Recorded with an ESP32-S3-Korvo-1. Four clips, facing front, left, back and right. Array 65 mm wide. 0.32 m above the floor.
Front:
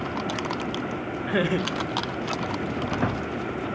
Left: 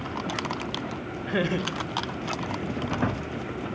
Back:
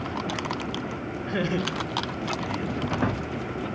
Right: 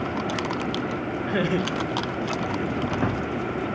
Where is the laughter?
5° left, 1.3 m; by 3.0 s 160° right, 2 m.